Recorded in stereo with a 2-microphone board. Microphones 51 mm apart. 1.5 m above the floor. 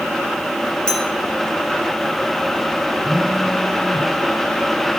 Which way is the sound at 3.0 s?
20° left (ahead or behind).